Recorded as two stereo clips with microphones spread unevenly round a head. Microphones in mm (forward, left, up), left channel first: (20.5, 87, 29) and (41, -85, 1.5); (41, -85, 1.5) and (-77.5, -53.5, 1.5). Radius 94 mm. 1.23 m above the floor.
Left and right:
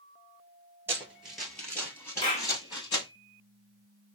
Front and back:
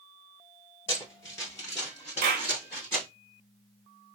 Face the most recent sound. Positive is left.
turn(degrees=160)